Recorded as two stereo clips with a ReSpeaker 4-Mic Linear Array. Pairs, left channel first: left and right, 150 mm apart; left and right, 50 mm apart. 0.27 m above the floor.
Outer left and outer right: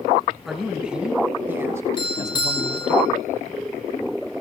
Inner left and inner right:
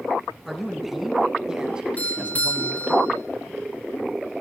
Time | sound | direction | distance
0.5 | a man speaking | centre (ahead or behind) | 2.5 m
2.0 | a doorbell | 35° left (ahead or behind) | 5.5 m